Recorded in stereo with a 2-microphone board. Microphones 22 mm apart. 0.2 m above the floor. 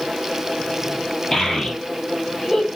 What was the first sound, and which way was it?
A child speaking, 25° left (ahead or behind).